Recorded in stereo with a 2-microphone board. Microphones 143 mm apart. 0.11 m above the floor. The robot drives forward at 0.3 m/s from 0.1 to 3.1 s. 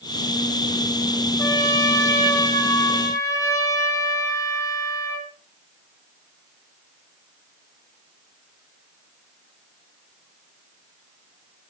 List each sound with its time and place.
1.4 s a trumpet: 25° left (ahead or behind), 4 m; by 5.3 s 20° left (ahead or behind), 4.5 m